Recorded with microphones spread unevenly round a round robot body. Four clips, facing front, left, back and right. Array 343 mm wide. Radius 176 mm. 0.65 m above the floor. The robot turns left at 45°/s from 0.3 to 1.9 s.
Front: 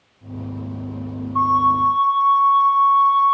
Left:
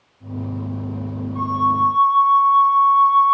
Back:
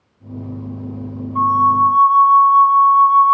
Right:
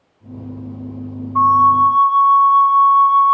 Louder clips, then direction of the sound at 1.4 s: Right 8 dB, back 3 dB; 70° right.